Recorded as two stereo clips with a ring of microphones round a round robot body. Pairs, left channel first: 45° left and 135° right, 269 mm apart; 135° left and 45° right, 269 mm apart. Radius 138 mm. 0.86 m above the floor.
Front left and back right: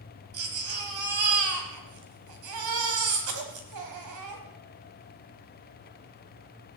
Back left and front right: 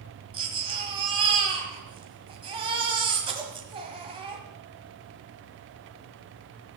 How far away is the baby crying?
About 1.7 m.